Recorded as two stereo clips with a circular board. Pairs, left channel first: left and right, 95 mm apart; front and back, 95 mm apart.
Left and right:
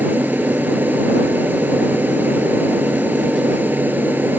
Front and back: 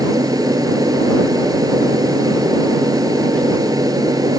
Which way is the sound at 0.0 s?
155° right.